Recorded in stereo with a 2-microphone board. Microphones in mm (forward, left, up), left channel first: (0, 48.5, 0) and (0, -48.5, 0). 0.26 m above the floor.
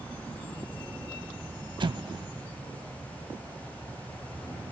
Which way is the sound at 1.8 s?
55° right (ahead or behind).